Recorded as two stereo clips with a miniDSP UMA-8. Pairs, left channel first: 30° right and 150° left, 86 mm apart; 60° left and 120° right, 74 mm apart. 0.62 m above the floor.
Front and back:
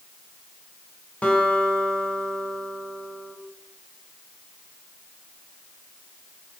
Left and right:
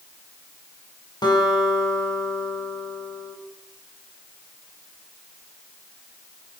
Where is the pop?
I don't hear a pop.